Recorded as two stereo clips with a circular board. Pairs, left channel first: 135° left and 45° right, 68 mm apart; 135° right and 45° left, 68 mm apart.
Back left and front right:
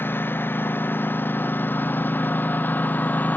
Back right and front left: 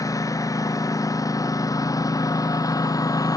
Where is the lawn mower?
165° right; by 3.4 s 160° right.